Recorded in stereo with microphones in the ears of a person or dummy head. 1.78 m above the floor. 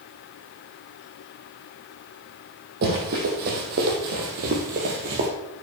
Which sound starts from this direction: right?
Running footsteps, at 2.8 s.